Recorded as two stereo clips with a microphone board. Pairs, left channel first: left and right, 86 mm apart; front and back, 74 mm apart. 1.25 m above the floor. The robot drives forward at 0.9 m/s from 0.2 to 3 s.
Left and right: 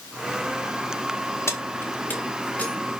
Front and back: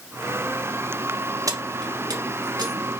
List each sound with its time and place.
1.5 s keys jangling: 145° left, 1.1 m; by 2.7 s 165° left, 2 m